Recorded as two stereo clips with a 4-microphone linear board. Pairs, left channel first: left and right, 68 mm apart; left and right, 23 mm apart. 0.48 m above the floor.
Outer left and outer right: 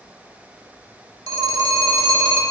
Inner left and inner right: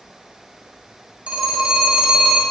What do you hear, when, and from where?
1.3 s a phone ringing: 70° right (ahead or behind), 1.0 m